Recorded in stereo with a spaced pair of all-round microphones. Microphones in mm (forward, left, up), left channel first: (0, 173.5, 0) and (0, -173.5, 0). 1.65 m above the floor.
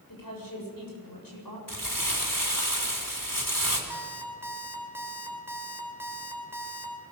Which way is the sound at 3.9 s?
5° right (ahead or behind).